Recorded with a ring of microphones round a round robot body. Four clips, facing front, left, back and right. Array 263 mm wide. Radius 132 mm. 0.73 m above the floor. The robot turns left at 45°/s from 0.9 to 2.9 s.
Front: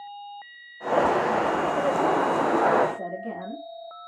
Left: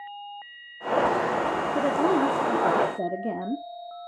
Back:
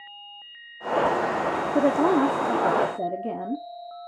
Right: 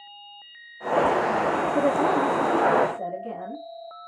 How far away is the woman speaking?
About 1.9 m.